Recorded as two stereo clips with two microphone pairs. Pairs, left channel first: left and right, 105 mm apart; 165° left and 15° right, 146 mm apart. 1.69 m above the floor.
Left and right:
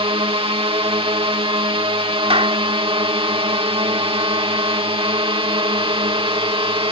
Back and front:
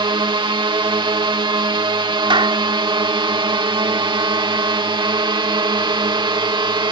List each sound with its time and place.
0.0 s a drone: 70° right
2.3 s a clap: 70° right